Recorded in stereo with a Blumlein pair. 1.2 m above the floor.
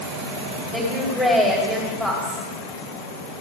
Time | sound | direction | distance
0.7 | a woman speaking | straight ahead | 3 m